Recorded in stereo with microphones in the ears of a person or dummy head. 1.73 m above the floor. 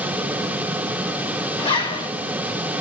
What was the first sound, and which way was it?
A zipper, 20° left (ahead or behind).